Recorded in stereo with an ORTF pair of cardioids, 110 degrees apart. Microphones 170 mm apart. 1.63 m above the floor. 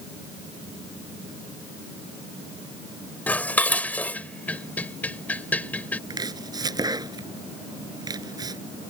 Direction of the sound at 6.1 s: 25° right.